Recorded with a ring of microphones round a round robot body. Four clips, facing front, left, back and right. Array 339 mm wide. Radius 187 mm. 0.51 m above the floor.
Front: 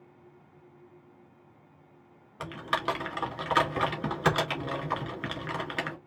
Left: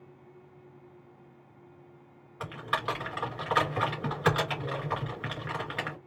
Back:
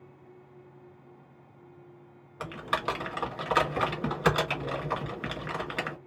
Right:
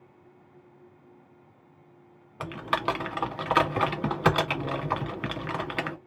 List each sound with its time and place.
2.4 s typing on a keyboard: 85° right, 2 m